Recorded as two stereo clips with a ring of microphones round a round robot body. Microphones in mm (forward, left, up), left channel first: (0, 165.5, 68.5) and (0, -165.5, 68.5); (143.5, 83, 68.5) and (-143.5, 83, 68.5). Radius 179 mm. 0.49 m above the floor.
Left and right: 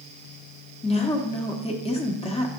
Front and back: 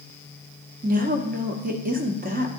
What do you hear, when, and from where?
0.8 s a woman speaking: 150° left, 1.0 m